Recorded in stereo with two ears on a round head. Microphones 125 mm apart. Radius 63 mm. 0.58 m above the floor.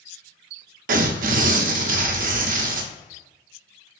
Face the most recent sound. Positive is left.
turn(degrees=-65)  # may be behind; listen again after turning